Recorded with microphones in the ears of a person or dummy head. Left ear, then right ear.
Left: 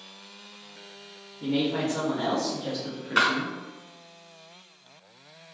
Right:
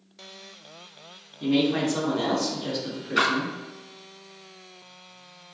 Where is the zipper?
I don't hear a zipper.